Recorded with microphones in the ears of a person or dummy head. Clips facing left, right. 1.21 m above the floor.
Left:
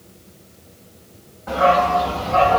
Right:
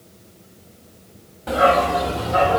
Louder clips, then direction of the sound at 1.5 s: Even; 45° right (ahead or behind).